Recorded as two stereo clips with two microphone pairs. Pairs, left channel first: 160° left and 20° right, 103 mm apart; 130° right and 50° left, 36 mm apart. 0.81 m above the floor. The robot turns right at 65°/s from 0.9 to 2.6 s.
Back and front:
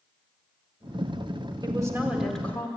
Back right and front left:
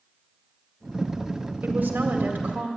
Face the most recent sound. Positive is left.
turn(degrees=90)